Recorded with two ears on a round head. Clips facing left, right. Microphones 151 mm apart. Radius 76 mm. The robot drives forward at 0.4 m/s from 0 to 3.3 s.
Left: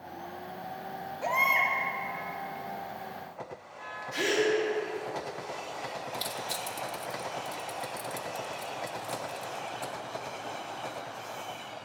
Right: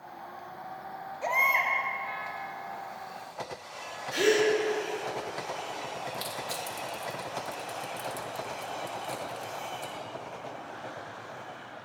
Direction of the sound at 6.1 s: 5° left (ahead or behind).